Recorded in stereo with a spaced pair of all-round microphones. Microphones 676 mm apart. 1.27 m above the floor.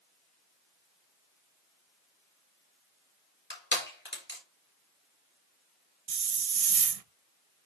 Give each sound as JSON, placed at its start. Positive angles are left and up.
{"t": 3.5, "sound": "crushing", "side_deg": 15, "distance_m": 4.0}
{"t": 6.1, "sound": "a hiss", "side_deg": -60, "distance_m": 0.7}